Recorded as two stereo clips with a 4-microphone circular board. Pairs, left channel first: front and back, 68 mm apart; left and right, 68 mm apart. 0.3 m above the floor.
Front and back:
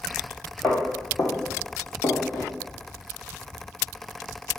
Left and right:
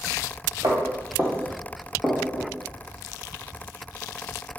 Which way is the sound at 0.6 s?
50° right.